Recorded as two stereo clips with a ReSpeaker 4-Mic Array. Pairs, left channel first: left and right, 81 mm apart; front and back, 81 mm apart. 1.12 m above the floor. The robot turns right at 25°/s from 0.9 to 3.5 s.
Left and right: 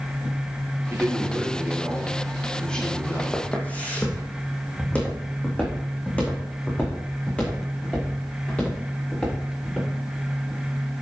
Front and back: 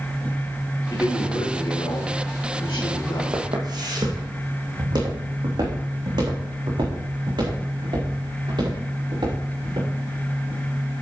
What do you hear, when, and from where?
0.9 s a man speaking: 35° right, 2.5 m; by 3.2 s 25° left, 2.5 m
3.3 s footsteps: 155° left, 2.5 m; by 9.9 s 165° left, 6 m